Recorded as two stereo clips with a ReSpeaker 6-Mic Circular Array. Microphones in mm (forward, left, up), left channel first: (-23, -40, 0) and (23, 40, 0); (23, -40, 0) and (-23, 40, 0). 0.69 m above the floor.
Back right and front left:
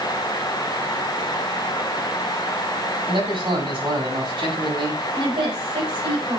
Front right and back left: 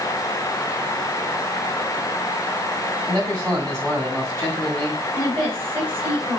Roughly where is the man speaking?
Ahead left.